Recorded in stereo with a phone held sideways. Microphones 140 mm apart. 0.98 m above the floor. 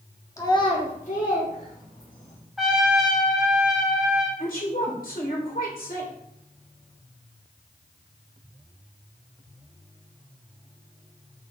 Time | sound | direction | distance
0.4 | a child speaking | 20° left (ahead or behind) | 1.8 m
2.6 | a trumpet | centre (ahead or behind) | 3 m
4.4 | a woman speaking | 80° left | 4 m